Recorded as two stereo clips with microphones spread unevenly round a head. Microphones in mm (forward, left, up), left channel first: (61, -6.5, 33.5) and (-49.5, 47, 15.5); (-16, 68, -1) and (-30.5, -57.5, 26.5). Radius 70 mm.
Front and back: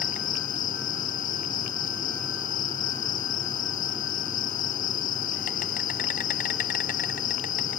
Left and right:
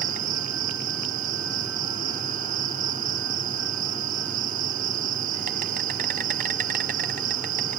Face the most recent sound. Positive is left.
turn(degrees=-55)